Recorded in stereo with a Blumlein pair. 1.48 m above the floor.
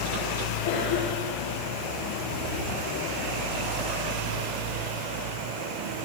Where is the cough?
60° left, 1.3 m.